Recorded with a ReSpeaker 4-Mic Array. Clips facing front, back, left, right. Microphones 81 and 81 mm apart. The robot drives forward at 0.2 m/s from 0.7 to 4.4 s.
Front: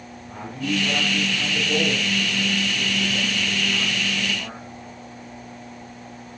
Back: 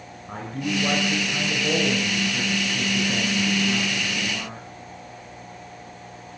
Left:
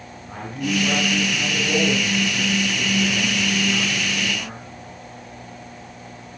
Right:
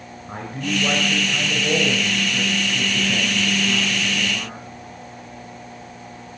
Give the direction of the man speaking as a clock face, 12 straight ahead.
5 o'clock.